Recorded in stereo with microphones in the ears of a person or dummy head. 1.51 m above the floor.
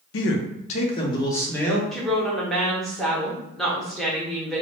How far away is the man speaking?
About 0.6 m.